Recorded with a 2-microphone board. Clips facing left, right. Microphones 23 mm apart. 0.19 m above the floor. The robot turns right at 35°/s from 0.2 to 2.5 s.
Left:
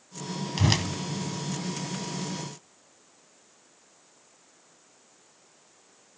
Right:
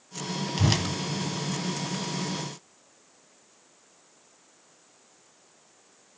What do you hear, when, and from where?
0.6 s a whoosh: 10° left (ahead or behind), 0.6 m; by 0.8 s 15° left (ahead or behind), 0.6 m